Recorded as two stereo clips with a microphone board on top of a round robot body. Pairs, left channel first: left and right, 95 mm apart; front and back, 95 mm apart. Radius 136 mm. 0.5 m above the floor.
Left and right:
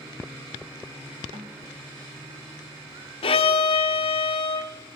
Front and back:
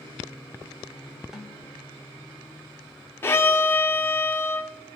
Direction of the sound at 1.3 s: 95° right.